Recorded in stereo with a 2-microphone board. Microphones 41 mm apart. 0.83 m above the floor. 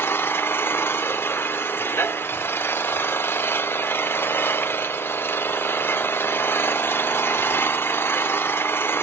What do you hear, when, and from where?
0.0 s an engine running: 75° left (ahead or behind), 1.6 m